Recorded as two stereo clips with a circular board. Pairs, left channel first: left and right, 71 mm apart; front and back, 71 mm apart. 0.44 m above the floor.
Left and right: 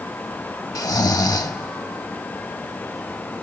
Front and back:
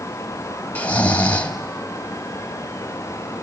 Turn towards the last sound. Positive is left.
turn(degrees=70)